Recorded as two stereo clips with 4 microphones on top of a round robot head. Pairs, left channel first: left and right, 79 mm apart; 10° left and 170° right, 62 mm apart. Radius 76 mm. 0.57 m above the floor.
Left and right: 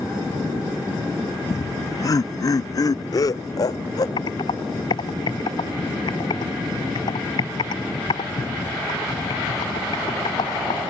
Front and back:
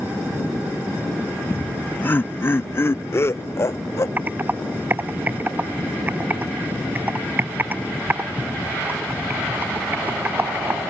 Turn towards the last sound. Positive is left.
turn(degrees=130)